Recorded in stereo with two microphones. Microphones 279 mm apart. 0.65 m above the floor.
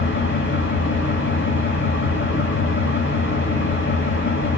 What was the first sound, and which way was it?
An engine running, 45° left (ahead or behind).